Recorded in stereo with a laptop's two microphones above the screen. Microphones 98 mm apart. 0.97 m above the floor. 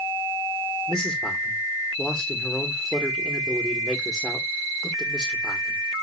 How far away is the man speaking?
About 2.5 m.